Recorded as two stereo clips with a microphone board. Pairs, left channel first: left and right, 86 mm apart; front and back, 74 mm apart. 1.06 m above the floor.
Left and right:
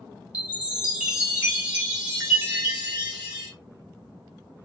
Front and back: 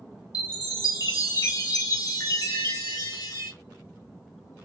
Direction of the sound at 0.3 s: 20° right.